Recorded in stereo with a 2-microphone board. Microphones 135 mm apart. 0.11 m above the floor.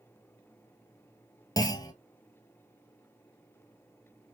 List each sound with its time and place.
1.6 s a clunk: 30° left (ahead or behind), 0.7 m